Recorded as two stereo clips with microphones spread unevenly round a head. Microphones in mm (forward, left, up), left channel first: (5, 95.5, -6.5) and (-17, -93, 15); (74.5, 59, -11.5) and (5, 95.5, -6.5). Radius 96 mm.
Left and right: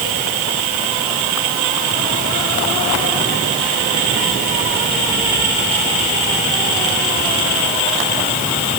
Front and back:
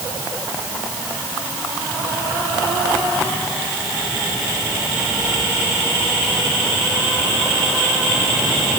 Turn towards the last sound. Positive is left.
No sound to turn to.